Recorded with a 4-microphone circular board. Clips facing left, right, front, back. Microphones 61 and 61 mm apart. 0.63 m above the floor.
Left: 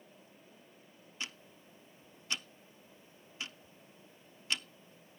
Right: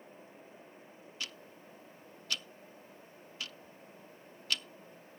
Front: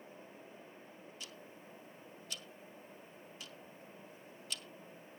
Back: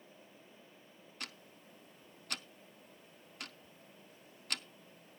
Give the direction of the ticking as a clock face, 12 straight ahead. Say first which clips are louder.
Left 1 dB, back 6 dB; 7 o'clock.